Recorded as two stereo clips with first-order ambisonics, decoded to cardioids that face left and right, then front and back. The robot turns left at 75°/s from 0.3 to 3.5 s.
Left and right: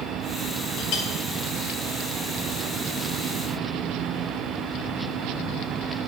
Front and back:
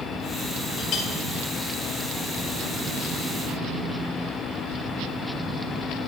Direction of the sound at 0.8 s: 65° left.